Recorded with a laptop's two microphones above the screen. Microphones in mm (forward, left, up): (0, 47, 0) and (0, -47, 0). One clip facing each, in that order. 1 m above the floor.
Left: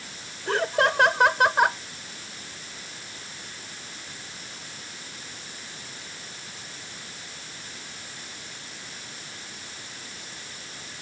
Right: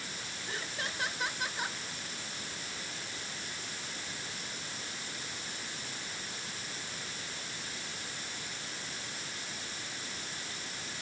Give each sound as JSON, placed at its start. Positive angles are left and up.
{"t": 0.5, "sound": "laughter", "side_deg": 75}